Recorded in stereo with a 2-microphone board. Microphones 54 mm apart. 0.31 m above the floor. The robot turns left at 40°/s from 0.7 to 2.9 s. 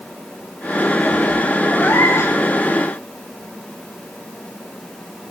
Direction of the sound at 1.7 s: 35° left (ahead or behind).